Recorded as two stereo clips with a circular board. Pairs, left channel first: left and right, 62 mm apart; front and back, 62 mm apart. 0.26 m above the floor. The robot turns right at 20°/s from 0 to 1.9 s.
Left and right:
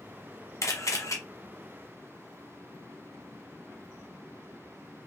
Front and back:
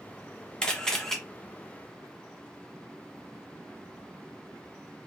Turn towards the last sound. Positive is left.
turn(degrees=100)